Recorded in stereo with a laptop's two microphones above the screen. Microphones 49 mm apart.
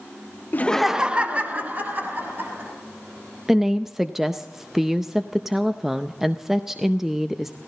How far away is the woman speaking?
About 0.6 m.